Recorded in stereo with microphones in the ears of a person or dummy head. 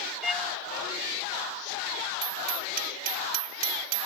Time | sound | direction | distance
0.2 | a violin | 10° right (ahead or behind) | ?
2.2 | hammering | 45° right (ahead or behind) | ?